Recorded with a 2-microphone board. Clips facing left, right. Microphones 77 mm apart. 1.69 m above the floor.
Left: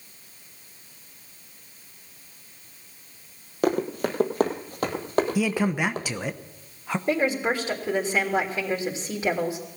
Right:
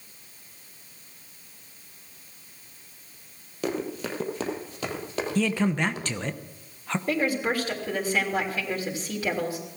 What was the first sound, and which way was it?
Running footsteps, 50° left (ahead or behind).